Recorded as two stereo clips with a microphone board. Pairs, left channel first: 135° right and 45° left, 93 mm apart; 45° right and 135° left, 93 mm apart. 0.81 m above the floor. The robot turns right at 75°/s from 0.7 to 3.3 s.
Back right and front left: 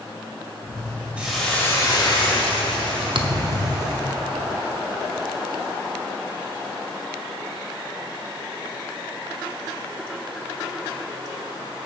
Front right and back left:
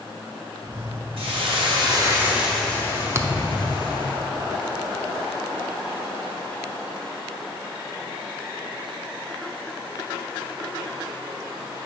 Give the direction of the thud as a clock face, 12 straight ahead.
10 o'clock.